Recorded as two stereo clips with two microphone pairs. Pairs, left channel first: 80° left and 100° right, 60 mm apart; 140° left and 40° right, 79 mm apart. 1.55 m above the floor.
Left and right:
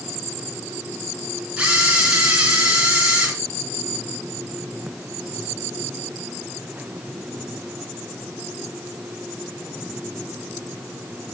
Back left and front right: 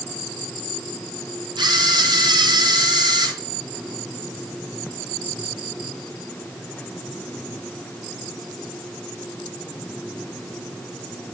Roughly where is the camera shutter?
Ahead right.